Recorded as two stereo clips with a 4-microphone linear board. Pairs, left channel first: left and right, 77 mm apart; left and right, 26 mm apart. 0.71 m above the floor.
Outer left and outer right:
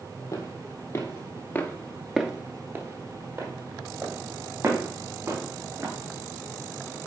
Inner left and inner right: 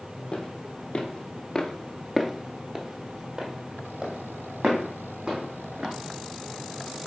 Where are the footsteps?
40° left (ahead or behind), 1.6 m; by 5.9 s 40° right (ahead or behind), 3.5 m.